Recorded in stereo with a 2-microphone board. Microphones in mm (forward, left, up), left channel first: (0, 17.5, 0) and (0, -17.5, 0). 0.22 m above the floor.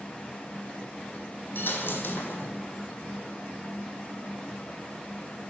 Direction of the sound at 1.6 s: 65° left (ahead or behind).